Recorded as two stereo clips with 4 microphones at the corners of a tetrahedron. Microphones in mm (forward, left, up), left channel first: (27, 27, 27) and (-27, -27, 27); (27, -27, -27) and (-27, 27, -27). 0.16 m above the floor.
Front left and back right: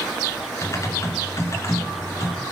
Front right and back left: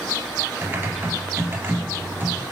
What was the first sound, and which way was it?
Typing on a keyboard, 80° left.